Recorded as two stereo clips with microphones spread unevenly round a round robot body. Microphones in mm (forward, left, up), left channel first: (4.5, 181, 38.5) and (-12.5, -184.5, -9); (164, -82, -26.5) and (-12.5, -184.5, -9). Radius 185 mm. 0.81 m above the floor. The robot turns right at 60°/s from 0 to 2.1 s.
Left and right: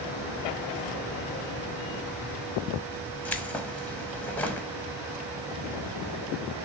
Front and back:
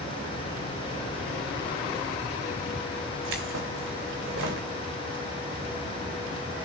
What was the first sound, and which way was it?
Keys jangling, 175° left.